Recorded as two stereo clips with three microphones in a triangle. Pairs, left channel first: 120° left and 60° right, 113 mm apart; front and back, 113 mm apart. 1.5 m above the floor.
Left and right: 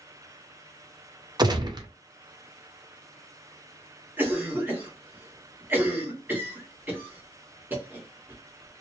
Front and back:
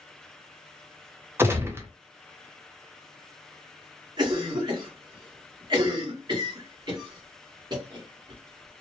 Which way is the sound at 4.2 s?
135° right.